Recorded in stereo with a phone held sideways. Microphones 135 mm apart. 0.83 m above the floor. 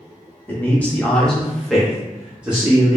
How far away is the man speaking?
About 1.0 m.